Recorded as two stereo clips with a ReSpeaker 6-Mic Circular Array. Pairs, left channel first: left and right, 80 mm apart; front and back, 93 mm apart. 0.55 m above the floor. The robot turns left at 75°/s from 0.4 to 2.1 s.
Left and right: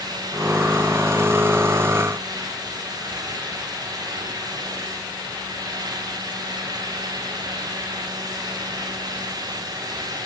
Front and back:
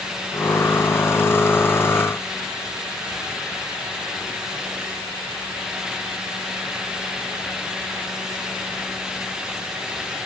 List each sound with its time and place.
Only background noise.